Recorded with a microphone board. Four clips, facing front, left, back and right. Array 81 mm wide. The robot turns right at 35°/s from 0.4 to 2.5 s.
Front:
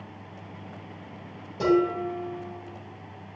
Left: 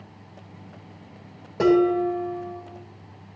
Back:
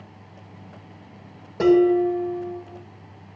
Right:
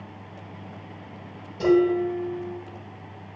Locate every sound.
1.6 s dishes clattering: 130° left, 4.5 m; by 2.6 s 160° left, 4.5 m